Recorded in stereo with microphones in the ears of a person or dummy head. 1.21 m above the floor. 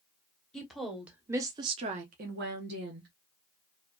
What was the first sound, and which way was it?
A woman speaking, centre (ahead or behind).